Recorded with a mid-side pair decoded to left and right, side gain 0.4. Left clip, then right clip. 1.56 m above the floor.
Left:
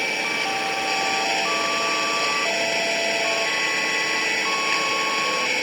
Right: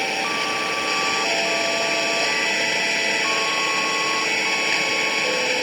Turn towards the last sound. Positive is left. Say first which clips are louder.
# right 1 dB
turn(degrees=-20)